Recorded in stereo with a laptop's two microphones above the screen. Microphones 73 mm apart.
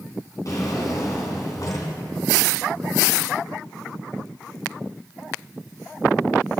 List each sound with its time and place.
0.5 s a drawer: 50° left (ahead or behind), 3 m